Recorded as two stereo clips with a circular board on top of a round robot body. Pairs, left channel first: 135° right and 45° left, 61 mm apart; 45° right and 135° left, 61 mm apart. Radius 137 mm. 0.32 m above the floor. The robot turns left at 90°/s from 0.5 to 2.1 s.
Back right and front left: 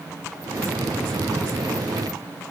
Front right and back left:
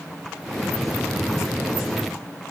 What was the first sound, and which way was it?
Only background noise.